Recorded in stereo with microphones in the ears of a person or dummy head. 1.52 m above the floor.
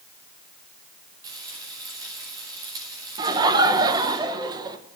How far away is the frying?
About 5.5 m.